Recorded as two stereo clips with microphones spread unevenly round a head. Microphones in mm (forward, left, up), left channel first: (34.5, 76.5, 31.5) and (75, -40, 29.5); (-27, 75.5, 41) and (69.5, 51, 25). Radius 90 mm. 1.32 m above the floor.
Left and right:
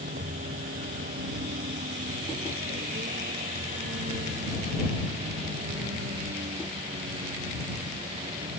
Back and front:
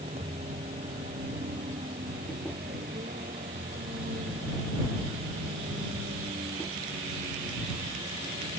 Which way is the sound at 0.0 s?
55° right.